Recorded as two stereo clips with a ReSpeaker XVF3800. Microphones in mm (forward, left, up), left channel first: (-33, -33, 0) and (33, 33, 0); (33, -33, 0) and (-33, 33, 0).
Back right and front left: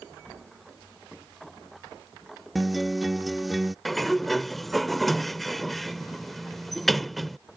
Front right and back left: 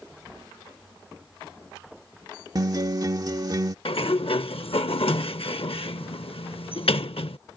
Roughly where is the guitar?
Behind left.